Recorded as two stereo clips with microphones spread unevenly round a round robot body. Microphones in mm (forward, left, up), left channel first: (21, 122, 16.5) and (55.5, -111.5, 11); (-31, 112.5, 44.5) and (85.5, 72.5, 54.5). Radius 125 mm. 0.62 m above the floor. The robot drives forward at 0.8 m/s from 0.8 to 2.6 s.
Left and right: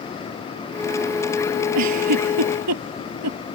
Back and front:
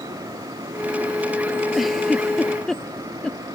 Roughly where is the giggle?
Right.